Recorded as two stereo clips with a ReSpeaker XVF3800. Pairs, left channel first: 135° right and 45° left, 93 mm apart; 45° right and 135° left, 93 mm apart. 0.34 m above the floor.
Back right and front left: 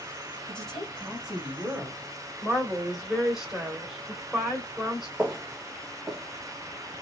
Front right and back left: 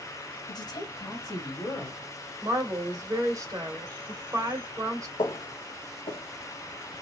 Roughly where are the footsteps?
Ahead right.